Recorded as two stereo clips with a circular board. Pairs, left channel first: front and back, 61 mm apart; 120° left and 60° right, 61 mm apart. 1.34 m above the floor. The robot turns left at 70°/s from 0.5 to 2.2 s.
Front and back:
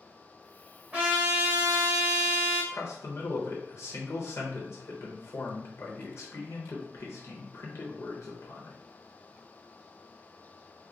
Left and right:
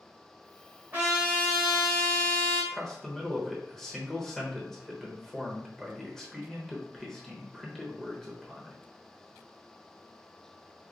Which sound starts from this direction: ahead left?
A man speaking, at 2.7 s.